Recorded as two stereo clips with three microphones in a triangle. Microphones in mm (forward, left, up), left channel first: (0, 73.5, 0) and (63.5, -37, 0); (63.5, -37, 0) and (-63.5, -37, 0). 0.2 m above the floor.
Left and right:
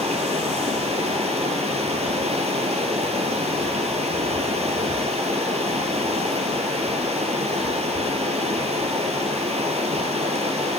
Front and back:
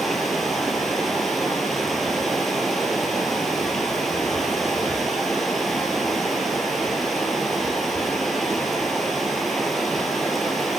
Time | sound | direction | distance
0.0 | running water | 90° right | 1.4 m